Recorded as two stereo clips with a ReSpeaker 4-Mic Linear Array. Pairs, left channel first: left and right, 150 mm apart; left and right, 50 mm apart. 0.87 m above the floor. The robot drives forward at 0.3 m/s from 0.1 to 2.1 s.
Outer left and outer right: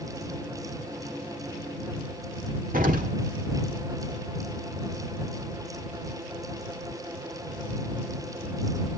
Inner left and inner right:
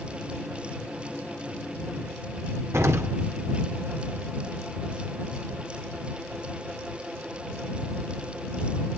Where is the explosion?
65° right (ahead or behind), 1.8 m.